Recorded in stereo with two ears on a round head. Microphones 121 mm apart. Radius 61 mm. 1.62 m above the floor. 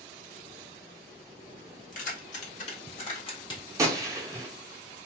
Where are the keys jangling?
60° left (ahead or behind), 1.6 m; by 3.6 s 30° left (ahead or behind), 1.4 m.